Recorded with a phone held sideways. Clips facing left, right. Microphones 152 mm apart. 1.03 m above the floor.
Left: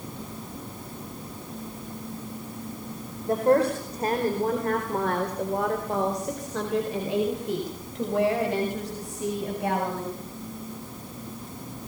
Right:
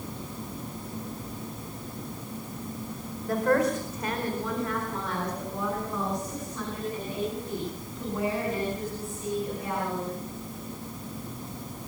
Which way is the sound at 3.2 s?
25° left (ahead or behind).